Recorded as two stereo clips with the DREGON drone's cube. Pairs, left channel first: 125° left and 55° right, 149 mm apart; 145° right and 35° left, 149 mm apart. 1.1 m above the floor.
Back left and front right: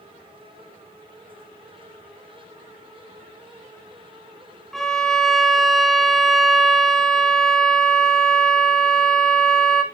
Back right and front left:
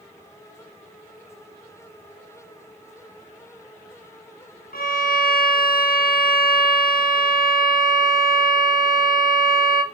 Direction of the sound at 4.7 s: 150° right.